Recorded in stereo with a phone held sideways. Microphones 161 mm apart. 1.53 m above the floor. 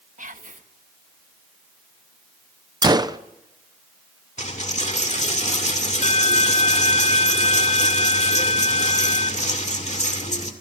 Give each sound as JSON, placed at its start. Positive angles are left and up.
{"t": 0.2, "sound": "whispering", "side_deg": -55, "distance_m": 1.5}
{"t": 2.8, "sound": "a gunshot", "side_deg": -25, "distance_m": 0.7}
{"t": 4.4, "sound": "a dropped coin", "side_deg": 45, "distance_m": 2.0}